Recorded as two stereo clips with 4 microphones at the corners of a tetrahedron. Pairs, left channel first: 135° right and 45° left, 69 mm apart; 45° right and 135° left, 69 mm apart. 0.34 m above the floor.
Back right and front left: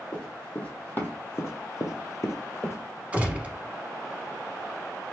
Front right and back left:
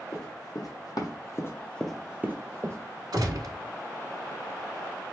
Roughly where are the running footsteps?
Ahead right.